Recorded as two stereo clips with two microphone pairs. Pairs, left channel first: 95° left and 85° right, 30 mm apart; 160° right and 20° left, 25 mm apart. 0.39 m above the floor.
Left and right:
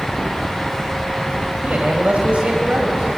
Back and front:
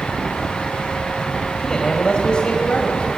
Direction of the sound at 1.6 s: 100° right.